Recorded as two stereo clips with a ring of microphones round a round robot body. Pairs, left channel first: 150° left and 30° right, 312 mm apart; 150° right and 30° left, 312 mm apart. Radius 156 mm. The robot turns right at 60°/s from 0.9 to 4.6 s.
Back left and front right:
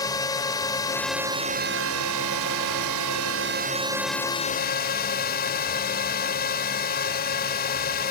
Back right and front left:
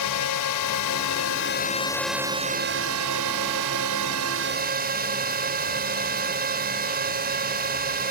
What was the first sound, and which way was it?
A drone, 130° right.